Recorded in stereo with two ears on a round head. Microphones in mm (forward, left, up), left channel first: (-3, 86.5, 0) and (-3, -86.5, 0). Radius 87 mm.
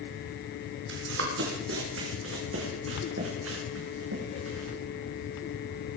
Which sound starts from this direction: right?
Running footsteps, at 0.9 s.